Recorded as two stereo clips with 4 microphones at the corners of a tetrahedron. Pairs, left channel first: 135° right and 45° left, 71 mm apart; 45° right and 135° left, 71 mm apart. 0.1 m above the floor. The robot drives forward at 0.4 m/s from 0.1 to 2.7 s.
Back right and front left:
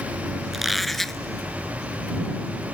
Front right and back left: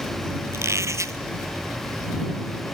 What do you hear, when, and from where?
0.5 s a squeak: 130° left; by 1.2 s 145° left